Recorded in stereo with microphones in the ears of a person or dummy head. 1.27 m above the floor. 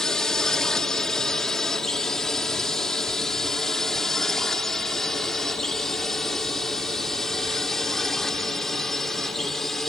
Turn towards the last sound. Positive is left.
turn(degrees=0)  # may be behind; listen again after turning